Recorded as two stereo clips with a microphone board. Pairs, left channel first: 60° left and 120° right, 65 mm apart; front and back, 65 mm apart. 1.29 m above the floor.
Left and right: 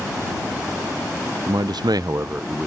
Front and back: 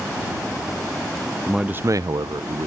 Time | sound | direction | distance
1.5 | a man speaking | 95° right | ?